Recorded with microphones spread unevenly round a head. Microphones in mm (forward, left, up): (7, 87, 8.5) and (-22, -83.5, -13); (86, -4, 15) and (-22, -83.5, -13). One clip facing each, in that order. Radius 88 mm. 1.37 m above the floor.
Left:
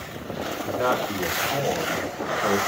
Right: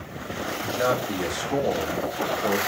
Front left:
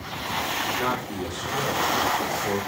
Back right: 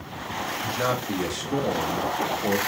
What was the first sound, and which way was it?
A man speaking, 170° right.